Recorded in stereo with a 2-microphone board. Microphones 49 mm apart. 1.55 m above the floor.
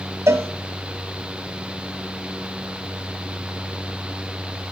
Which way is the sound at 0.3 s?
65° right (ahead or behind).